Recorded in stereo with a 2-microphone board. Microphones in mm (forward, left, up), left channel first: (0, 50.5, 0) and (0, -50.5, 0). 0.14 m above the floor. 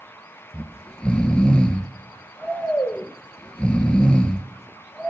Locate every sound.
0.5 s snoring: 10° left (ahead or behind), 0.8 m